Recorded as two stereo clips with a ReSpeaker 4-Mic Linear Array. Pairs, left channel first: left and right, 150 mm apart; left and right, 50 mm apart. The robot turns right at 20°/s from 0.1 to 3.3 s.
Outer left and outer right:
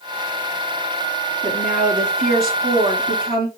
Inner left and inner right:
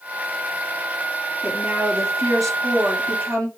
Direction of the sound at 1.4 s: 120° right.